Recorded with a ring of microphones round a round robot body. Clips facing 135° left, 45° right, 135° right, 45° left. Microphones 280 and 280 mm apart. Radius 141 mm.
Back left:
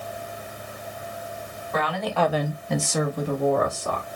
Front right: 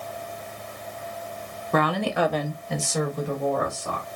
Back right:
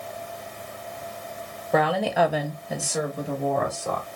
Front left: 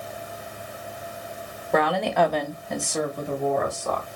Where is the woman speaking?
45° right, 0.8 m; by 4.0 s 140° left, 2 m.